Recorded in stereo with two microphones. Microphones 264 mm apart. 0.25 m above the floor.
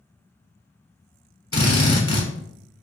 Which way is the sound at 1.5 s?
55° left (ahead or behind).